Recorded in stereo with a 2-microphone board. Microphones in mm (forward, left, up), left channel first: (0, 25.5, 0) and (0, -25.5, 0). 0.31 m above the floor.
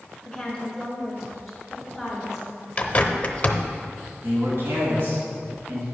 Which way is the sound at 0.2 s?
5° left (ahead or behind).